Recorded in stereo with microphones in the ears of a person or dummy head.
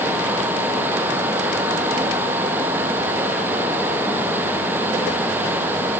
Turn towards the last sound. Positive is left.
No sound to turn to.